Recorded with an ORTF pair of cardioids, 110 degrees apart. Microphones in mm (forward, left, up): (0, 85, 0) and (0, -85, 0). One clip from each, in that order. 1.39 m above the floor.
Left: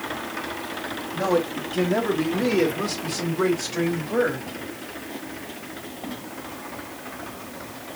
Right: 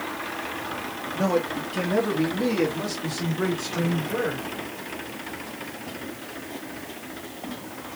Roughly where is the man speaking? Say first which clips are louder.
Left 2 dB; ahead.